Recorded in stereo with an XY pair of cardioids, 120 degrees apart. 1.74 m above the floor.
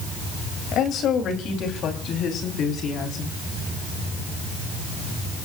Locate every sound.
0.7 s a woman speaking: 65° left, 3 m; by 3.3 s 60° left, 5 m